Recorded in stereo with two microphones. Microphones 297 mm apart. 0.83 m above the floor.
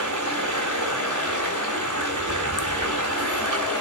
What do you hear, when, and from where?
0.0 s running water: 80° right, 3.5 m